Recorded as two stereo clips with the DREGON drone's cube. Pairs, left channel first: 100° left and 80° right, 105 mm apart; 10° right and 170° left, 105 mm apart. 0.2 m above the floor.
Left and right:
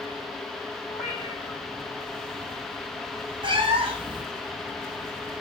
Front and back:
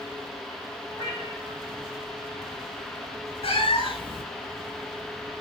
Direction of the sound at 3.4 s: 40° right.